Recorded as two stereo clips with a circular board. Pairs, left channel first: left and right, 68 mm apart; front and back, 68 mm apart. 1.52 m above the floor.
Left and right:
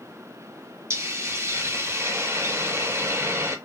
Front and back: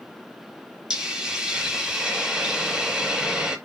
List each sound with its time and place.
0.9 s a hiss: 105° right, 0.9 m